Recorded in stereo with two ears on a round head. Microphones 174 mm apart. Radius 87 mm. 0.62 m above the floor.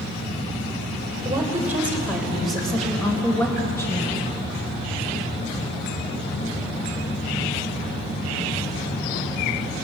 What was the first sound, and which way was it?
A woman speaking, 15° right (ahead or behind).